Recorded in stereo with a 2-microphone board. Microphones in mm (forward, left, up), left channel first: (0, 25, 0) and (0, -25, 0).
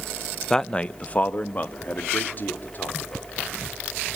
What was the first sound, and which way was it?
A man speaking, 10° left (ahead or behind).